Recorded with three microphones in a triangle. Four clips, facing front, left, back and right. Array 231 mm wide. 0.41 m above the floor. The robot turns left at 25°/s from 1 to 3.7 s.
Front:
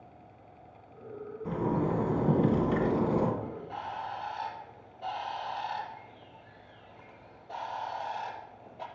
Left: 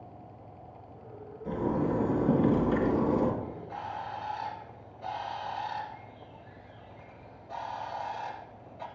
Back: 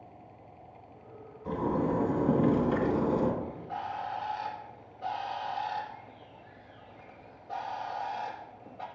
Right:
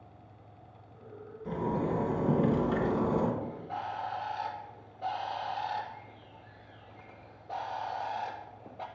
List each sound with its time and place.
1.4 s a zipper: straight ahead, 3 m; by 3.3 s 50° right, 3 m
3.4 s a bird: 100° right, 2 m; by 8.9 s 105° right, 2 m